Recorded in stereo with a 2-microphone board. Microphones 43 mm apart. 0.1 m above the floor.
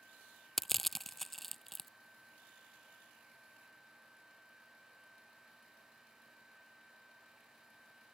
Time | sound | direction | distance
0.6 | crushing | 5° left (ahead or behind) | ?